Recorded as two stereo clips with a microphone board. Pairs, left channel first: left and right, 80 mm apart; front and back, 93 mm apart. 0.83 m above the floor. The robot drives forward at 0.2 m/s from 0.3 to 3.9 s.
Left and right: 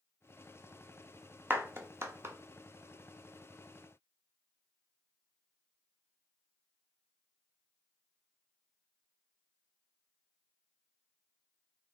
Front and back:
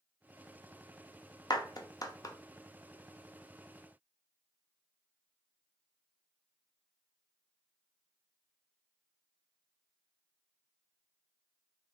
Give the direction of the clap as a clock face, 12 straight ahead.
1 o'clock.